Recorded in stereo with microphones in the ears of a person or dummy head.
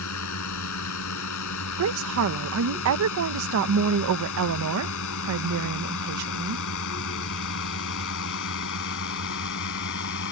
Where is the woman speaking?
85° right.